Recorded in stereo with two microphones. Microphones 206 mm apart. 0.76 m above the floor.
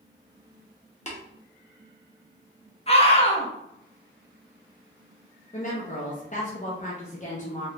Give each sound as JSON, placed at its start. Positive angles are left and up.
{"t": 1.1, "sound": "tapping", "side_deg": 35, "distance_m": 0.8}
{"t": 2.9, "sound": "a scream", "side_deg": 30, "distance_m": 0.8}
{"t": 5.5, "sound": "a woman speaking", "side_deg": 35, "distance_m": 0.6}